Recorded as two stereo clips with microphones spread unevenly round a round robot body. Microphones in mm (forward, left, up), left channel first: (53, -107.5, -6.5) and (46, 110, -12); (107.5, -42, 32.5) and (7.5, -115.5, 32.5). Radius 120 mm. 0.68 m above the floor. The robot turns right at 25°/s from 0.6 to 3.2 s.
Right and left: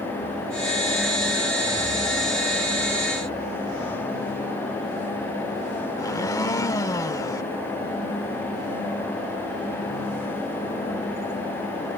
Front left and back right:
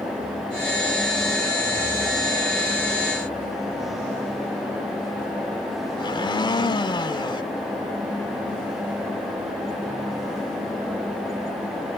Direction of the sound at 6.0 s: 15° right.